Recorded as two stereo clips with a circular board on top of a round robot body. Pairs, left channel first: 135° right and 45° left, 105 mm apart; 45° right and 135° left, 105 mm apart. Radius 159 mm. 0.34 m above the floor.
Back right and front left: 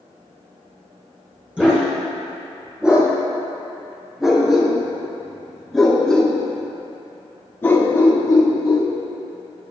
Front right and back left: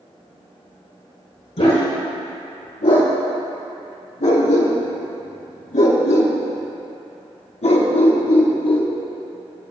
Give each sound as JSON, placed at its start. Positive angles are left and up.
{"t": 1.6, "sound": "a dog barking", "azimuth_deg": -35, "distance_m": 4.5}